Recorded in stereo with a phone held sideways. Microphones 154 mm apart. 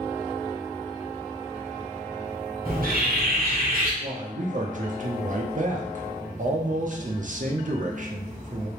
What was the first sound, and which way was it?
A bird, 70° right (ahead or behind).